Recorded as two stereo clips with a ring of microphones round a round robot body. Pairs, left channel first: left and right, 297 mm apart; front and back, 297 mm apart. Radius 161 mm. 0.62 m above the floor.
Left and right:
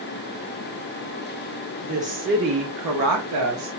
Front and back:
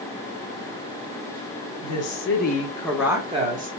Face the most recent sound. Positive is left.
turn(degrees=-125)